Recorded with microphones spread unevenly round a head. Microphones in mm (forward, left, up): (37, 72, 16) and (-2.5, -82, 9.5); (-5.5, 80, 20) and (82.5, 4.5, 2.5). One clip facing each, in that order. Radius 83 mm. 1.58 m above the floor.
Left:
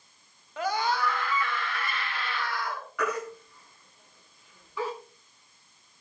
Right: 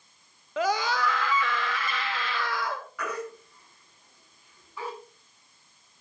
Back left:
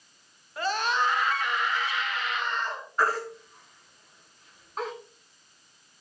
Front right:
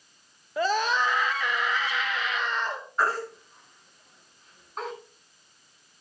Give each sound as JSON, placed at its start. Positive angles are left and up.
{"t": 0.6, "sound": "a scream", "azimuth_deg": -80, "distance_m": 1.7}
{"t": 3.0, "sound": "a baby crying", "azimuth_deg": 50, "distance_m": 9.5}